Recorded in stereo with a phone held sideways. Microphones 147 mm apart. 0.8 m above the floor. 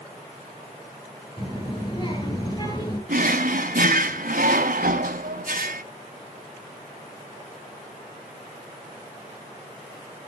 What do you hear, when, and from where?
1.4 s a child speaking: 30° left (ahead or behind), 7 m
3.1 s a drawer: 75° right (ahead or behind), 1.6 m